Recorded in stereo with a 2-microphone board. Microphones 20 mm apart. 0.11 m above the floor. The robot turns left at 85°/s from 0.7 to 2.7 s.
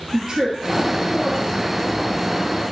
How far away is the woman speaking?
About 2.5 m.